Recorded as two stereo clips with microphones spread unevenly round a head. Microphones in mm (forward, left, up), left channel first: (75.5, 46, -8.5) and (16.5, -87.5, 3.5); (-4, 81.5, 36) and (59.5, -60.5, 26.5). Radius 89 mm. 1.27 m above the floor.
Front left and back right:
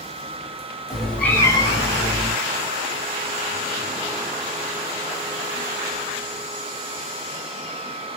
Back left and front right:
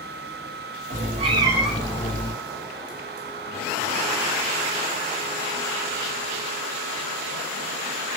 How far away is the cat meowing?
About 1.2 m.